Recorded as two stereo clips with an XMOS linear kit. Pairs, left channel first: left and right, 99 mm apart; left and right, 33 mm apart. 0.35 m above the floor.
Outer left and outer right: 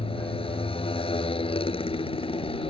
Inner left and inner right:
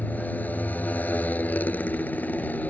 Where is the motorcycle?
70° left (ahead or behind).